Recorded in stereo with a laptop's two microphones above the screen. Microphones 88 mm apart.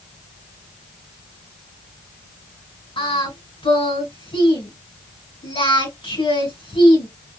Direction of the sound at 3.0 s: 80° left.